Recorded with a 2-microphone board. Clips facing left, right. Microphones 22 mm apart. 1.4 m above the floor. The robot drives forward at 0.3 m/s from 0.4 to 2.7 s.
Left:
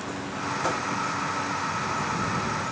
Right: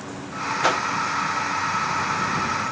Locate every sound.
0.6 s a whoosh: 65° right (ahead or behind)